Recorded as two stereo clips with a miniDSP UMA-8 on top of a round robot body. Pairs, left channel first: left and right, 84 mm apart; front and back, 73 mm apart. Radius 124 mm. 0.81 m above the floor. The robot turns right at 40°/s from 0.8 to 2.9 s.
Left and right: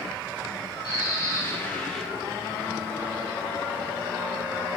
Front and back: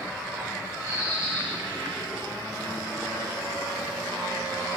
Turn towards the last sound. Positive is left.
turn(degrees=-150)